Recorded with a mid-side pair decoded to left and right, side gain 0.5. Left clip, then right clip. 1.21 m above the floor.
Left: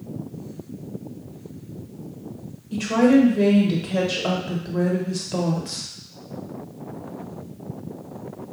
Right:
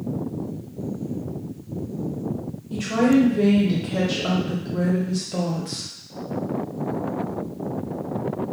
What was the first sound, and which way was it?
A woman speaking, 20° left.